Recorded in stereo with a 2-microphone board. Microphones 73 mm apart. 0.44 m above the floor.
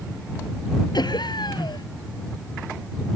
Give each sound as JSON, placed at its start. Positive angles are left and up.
{"t": 0.9, "sound": "laughter", "side_deg": 80}